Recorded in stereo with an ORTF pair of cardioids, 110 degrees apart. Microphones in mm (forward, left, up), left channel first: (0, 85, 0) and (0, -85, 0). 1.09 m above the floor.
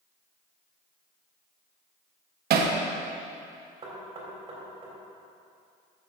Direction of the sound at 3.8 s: 30° right.